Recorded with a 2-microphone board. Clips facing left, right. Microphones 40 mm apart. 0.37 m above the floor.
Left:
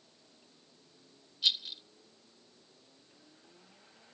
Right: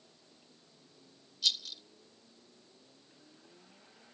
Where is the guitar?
No guitar in this recording.